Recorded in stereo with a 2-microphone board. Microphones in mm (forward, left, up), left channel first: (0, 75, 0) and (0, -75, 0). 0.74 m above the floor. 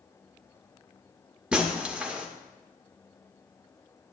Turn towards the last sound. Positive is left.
turn(degrees=-5)  # may be behind; listen again after turning